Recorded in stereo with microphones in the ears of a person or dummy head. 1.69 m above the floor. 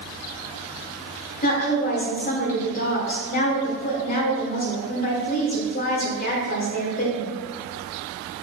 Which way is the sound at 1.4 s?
50° left (ahead or behind).